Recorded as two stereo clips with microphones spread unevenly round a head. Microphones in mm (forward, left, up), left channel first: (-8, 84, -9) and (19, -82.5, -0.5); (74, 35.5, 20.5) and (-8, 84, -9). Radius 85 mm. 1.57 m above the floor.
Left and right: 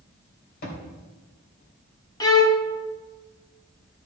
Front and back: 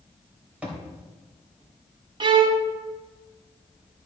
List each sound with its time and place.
0.6 s a thud: 65° left, 3.5 m
2.2 s a violin: 150° left, 0.9 m